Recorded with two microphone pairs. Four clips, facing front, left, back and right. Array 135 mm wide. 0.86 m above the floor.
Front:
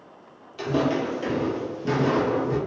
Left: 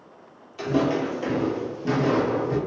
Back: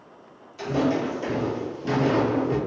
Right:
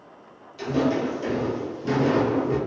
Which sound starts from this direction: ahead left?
Footsteps, at 0.6 s.